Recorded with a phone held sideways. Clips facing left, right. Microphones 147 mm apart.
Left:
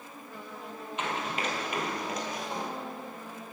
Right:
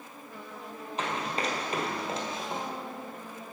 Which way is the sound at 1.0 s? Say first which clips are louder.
Right 1 dB; 35° right (ahead or behind).